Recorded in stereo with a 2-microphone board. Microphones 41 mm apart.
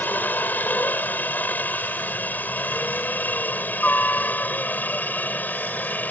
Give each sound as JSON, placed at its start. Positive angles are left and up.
{"t": 0.0, "sound": "a helicopter", "side_deg": 45}